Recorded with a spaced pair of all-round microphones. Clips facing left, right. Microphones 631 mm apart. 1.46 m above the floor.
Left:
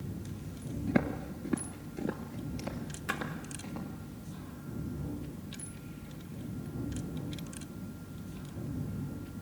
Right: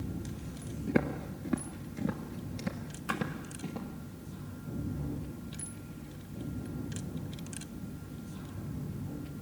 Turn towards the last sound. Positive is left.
turn(degrees=45)  # may be behind; listen again after turning